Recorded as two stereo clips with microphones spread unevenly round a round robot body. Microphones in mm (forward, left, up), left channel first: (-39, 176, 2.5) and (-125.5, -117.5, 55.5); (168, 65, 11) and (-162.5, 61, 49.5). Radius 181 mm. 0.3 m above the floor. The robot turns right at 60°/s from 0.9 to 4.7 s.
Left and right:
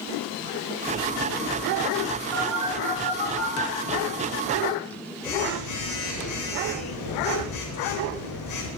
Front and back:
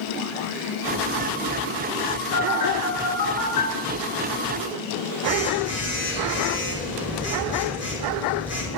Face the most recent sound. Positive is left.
turn(degrees=95)